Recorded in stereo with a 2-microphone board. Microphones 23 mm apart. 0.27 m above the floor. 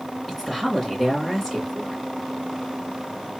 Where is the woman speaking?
5° right (ahead or behind), 2.5 m.